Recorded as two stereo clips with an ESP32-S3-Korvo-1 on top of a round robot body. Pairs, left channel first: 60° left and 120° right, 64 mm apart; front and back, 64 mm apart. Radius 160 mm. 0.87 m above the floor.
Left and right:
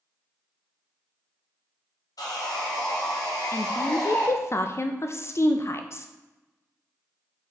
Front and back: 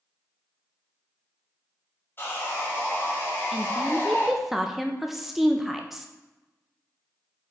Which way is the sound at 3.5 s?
95° left.